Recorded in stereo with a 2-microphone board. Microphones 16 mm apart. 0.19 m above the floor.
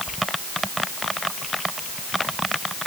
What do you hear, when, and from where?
Only background noise.